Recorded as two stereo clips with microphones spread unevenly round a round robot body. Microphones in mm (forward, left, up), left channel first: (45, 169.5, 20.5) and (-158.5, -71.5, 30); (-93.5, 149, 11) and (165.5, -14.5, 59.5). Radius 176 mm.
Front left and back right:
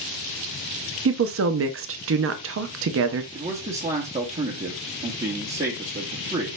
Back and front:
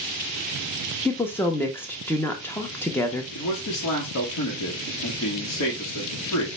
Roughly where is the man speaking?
Behind.